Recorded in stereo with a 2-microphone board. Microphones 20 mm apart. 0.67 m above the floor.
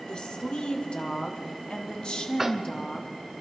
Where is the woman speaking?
50° left (ahead or behind), 1.9 m; by 3.1 s 35° left (ahead or behind), 1.3 m.